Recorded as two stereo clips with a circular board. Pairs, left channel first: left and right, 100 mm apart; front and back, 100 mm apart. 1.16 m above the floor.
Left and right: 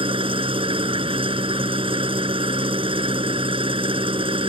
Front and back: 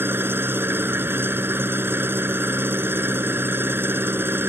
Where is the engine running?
115° right.